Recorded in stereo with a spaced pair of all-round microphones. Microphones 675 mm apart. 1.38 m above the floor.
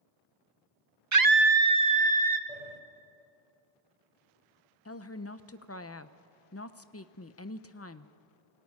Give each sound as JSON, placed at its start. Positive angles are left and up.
{"t": 1.1, "sound": "a scream", "side_deg": -25, "distance_m": 0.5}
{"t": 2.5, "sound": "a sliding door", "side_deg": 60, "distance_m": 1.9}
{"t": 4.8, "sound": "a woman speaking", "side_deg": 20, "distance_m": 0.8}